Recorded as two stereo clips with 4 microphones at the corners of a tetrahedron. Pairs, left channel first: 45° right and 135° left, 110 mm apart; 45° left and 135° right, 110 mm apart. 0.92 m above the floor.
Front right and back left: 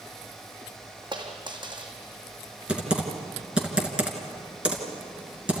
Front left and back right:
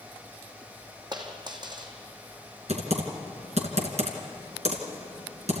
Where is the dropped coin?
Straight behind, 2.5 m.